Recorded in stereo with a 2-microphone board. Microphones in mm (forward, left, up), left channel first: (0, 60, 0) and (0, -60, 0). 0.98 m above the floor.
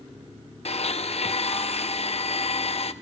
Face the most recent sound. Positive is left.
turn(degrees=60)  # may be behind; listen again after turning